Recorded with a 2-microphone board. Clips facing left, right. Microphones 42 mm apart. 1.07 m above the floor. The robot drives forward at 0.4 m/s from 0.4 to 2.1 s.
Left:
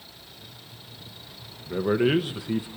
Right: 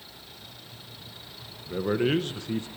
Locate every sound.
1.7 s a man speaking: 10° left (ahead or behind), 0.8 m